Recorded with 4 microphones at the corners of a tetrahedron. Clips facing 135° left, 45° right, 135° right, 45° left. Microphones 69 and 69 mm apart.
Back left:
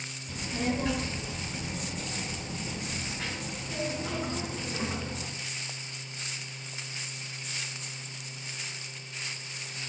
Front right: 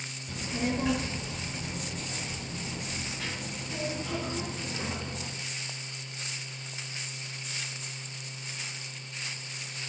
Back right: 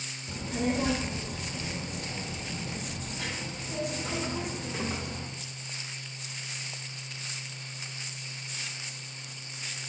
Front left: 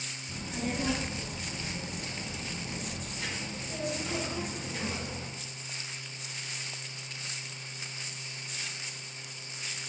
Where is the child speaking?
115° right, 1.0 m; by 5.3 s 170° right, 3 m.